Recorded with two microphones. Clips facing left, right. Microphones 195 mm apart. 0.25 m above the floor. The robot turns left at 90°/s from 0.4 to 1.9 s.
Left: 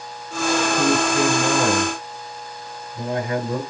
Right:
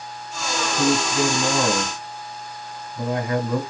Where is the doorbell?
No doorbell in this recording.